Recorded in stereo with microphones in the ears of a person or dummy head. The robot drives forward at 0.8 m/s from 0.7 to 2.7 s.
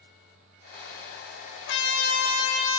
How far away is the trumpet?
About 0.9 m.